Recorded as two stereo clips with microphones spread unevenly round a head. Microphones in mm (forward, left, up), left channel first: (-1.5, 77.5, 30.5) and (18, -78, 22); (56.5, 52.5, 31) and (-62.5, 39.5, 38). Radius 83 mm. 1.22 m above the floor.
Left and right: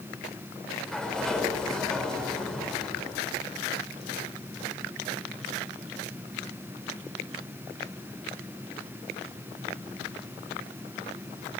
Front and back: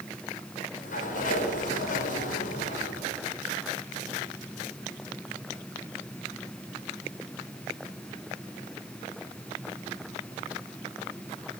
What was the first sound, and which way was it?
A sliding door, 10° left.